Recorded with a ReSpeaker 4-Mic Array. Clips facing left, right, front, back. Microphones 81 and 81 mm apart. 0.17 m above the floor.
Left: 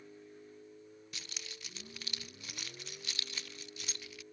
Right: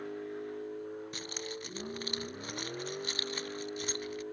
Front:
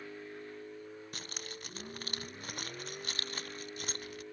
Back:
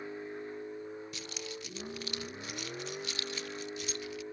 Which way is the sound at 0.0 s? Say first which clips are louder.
Right 14 dB, back 5 dB; 110° right.